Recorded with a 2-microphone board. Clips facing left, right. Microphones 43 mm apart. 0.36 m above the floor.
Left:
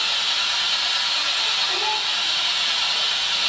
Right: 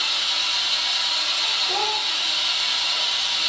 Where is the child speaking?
45° right (ahead or behind), 1.2 m.